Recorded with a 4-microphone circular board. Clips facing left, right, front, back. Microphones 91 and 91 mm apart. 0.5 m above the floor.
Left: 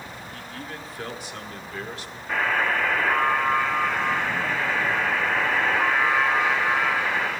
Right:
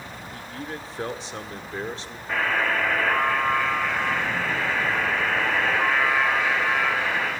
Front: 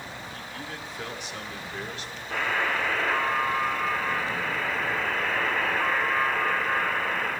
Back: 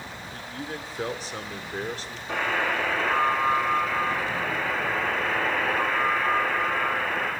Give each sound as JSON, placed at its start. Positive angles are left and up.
{"t": 0.3, "sound": "a man speaking", "azimuth_deg": -140, "distance_m": 1.1}
{"t": 2.3, "sound": "a buzzer", "azimuth_deg": -165, "distance_m": 7.0}